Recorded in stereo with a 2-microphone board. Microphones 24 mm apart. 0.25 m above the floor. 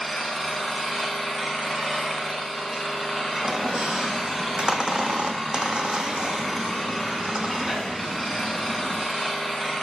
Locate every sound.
0.0 s an engine running: 5° left (ahead or behind), 1.6 m
3.4 s a squeak: 45° right (ahead or behind), 0.8 m